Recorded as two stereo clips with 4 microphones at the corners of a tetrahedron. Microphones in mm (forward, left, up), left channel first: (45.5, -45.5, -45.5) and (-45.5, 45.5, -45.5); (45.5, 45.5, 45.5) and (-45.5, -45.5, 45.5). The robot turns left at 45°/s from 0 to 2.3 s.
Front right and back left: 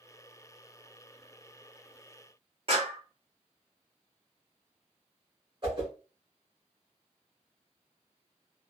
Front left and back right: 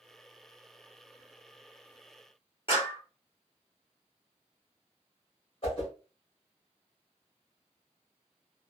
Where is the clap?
90° left, 1.7 m.